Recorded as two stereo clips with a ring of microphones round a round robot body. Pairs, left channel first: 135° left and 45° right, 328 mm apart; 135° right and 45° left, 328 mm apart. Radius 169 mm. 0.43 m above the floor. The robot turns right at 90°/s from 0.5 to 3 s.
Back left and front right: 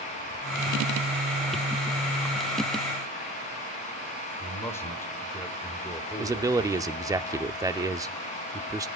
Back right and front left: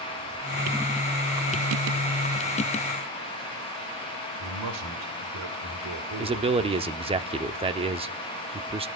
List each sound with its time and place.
4.4 s a man speaking: 55° left, 2 m
6.2 s a man speaking: 15° left, 0.8 m